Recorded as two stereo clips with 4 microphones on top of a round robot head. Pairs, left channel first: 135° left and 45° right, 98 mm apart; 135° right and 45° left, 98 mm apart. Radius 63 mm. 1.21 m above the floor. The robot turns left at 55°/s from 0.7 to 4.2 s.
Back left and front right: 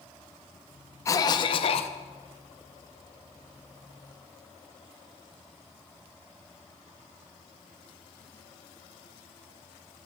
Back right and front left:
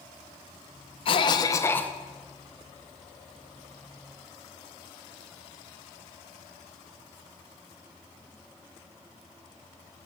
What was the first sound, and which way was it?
A cough, 165° right.